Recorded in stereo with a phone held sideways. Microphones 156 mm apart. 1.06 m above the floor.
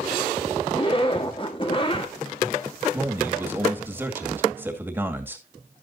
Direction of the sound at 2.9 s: 15° right (ahead or behind).